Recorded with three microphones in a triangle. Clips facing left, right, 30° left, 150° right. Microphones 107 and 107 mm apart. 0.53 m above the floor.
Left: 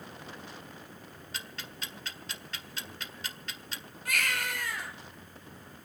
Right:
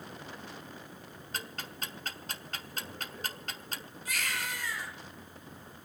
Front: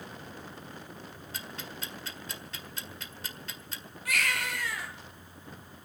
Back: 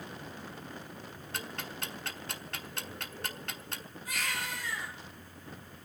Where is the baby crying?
55° left, 4.5 m.